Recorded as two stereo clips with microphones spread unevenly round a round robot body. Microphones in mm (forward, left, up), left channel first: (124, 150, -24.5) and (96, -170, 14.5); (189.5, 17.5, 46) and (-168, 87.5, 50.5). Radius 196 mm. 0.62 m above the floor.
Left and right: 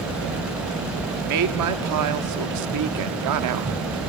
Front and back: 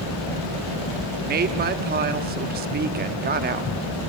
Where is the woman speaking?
130° right, 0.9 m.